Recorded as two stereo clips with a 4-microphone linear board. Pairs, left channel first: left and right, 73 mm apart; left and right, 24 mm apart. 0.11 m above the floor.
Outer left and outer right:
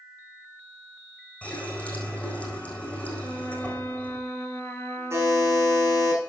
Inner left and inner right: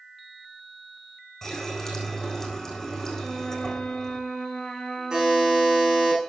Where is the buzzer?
40° right (ahead or behind), 6.5 m.